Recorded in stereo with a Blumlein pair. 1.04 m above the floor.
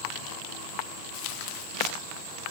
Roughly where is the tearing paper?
Ahead left.